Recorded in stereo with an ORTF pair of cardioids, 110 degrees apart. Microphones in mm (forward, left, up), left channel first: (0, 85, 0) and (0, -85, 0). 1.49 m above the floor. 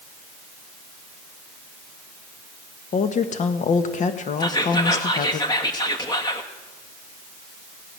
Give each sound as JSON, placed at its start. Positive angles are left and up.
{"t": 2.9, "sound": "a woman speaking", "azimuth_deg": 45, "distance_m": 1.5}
{"t": 4.4, "sound": "whispering", "azimuth_deg": 25, "distance_m": 1.8}